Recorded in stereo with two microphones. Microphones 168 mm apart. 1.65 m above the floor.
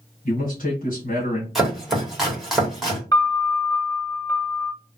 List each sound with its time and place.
0.2 s a man speaking: 55° left (ahead or behind), 1.5 m
1.6 s chopping: centre (ahead or behind), 1.4 m
3.1 s a piano: 25° left (ahead or behind), 1.0 m